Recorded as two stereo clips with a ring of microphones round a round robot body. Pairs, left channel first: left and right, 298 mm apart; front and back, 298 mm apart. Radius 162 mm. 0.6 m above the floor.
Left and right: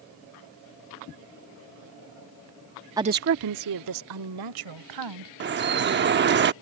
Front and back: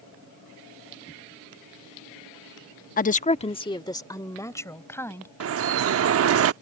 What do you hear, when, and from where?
3.0 s a woman speaking: 20° right; by 5.3 s 85° right
5.4 s dripping: 140° right